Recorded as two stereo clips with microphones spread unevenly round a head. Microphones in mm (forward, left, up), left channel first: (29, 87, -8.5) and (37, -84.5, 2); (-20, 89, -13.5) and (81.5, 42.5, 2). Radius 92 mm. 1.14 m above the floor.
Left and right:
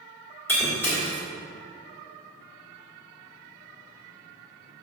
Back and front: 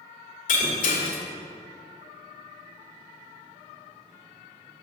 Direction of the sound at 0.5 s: 175° left.